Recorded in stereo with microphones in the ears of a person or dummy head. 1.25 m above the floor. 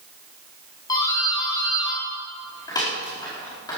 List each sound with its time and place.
0.9 s a doorbell: 20° left (ahead or behind), 4.5 m